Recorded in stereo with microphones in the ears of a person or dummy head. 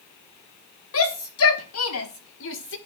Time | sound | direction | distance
0.9 | a shout | 65° left (ahead or behind) | 1.5 m